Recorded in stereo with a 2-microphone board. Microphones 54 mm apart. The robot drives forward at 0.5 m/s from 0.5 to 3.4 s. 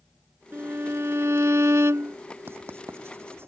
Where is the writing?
50° right (ahead or behind).